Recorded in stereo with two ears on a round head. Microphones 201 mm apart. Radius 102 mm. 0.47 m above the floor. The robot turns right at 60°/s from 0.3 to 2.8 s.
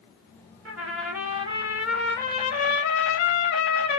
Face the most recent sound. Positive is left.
turn(degrees=50)